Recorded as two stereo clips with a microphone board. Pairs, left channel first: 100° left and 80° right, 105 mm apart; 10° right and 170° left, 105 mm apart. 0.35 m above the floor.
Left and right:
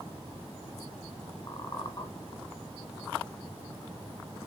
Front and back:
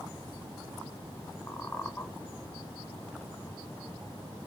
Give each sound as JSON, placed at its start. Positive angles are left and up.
{"t": 1.5, "sound": "a squeak", "azimuth_deg": 60, "distance_m": 1.0}